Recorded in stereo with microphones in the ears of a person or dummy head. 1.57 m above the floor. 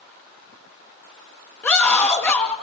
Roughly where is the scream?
Centre.